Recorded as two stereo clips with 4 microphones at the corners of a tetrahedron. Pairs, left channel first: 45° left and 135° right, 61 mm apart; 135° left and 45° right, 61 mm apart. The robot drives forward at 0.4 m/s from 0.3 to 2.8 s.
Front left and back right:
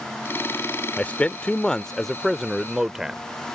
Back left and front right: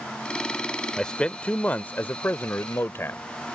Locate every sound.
1.0 s a man speaking: 70° left; by 3.2 s 145° left